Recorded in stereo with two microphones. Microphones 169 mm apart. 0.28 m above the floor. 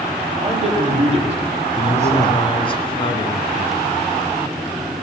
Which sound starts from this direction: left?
A man speaking, at 1.8 s.